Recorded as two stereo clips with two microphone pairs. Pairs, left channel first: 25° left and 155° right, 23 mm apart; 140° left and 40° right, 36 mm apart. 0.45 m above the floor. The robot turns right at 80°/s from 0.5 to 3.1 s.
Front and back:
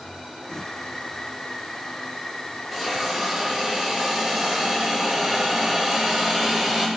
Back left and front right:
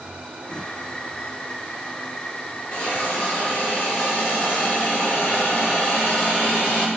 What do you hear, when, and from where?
2.7 s a hiss: 120° left, 1.8 m; by 6.9 s 155° left, 1.8 m